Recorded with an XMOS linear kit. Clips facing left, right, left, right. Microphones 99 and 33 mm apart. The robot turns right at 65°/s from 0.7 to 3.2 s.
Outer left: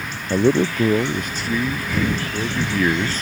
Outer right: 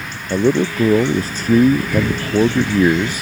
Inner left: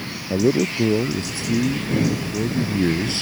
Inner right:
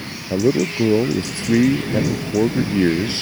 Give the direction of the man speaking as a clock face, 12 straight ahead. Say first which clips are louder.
Outer right 1 dB, inner right 1 dB; 6 o'clock.